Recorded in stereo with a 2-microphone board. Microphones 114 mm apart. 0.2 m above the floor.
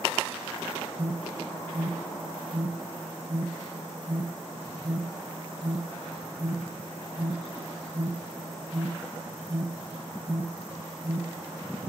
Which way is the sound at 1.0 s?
25° right (ahead or behind).